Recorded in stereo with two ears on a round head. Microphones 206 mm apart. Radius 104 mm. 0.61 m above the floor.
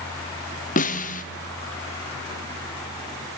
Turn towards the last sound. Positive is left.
turn(degrees=35)  # may be behind; listen again after turning